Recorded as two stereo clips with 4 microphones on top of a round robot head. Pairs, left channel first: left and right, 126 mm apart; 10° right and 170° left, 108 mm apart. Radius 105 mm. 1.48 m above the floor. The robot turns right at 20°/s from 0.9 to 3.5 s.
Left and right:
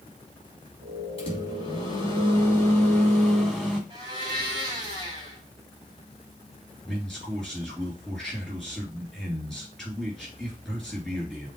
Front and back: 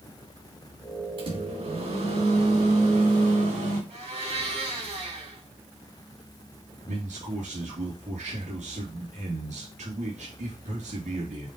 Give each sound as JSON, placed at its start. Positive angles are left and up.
{"t": 1.2, "sound": "a microwave", "azimuth_deg": 135, "distance_m": 3.5}
{"t": 3.9, "sound": "a blender", "azimuth_deg": -145, "distance_m": 2.5}
{"t": 6.8, "sound": "a man speaking", "azimuth_deg": 180, "distance_m": 3.5}